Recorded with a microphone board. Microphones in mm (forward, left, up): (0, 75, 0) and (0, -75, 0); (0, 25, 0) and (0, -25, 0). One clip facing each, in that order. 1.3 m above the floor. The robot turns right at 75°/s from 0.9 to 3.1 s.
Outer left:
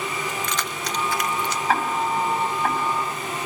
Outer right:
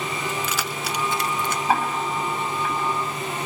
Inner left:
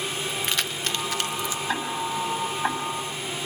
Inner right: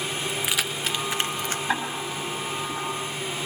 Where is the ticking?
20° right (ahead or behind), 7 m; by 3.5 s 85° left, 7 m.